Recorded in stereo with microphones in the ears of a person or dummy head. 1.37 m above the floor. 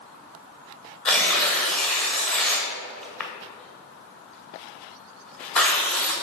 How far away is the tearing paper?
About 1.2 m.